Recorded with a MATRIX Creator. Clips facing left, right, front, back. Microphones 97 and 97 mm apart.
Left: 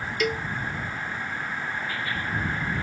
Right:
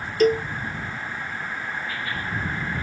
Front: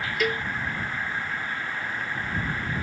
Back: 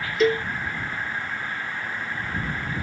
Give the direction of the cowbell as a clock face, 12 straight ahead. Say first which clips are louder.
Right 9 dB, back 7 dB; 4 o'clock.